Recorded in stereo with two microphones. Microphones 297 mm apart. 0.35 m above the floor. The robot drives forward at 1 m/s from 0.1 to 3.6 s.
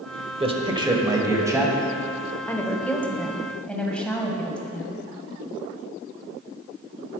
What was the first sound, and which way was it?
A man speaking, 20° right (ahead or behind).